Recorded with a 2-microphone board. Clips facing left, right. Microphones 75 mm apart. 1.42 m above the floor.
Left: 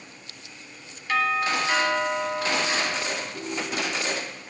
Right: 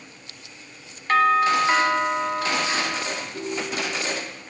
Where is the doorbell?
50° right (ahead or behind), 1.0 m.